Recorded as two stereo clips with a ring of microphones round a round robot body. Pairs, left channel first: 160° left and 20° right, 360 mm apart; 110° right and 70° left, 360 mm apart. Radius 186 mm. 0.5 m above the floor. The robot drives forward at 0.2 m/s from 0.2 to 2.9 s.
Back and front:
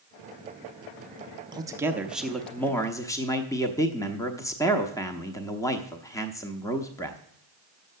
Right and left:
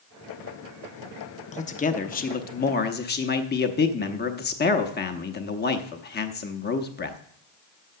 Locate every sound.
1.5 s a man speaking: 80° right, 0.8 m; by 7.2 s 130° right, 0.8 m